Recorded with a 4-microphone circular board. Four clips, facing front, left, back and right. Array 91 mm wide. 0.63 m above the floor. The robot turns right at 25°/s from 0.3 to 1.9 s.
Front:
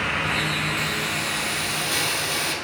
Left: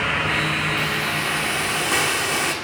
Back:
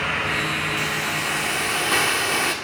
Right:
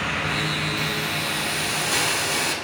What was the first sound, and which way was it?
A hiss, 115° left.